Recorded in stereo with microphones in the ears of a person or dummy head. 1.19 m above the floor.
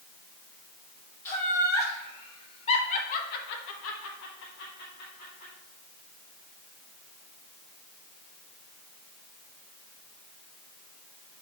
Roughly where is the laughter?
Centre.